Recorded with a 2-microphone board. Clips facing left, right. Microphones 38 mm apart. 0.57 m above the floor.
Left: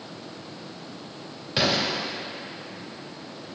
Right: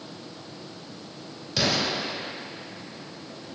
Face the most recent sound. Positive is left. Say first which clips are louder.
# left 1 dB
turn(degrees=25)  # may be behind; listen again after turning